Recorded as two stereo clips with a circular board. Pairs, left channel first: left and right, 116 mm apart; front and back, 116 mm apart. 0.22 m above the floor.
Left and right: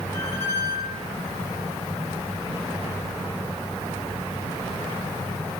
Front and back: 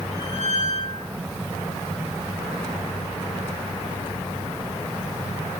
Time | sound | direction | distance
0.1 | a squeak | 160° left | 6.5 m